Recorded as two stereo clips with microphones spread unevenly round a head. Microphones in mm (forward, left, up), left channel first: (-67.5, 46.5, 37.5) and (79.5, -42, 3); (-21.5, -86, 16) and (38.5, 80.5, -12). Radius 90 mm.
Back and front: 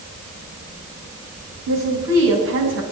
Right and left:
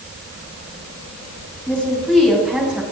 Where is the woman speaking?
25° right, 6 m; by 2.8 s 15° right, 6 m.